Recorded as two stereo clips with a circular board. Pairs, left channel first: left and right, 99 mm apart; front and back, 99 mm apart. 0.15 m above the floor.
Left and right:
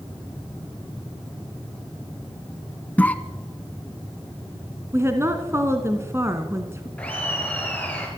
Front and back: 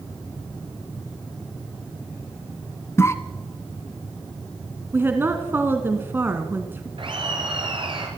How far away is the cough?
About 1.4 m.